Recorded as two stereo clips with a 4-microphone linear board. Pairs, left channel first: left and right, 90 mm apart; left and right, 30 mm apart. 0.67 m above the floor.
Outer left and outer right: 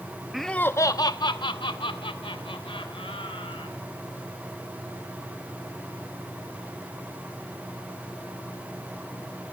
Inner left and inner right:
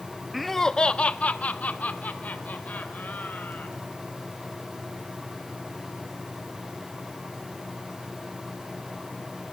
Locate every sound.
0.3 s laughter: 5° right (ahead or behind), 0.7 m; by 3.8 s 80° left, 3.5 m